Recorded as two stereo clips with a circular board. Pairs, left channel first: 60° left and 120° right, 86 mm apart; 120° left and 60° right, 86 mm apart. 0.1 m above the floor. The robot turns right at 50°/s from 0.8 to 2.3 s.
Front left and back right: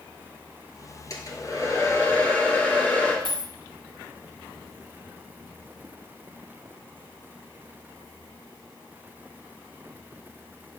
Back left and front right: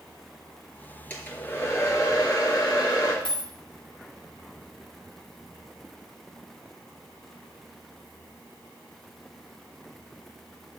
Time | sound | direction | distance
1.1 | a hair dryer | 55° left | 2 m
3.2 | a dropped coin | 95° left | 1.4 m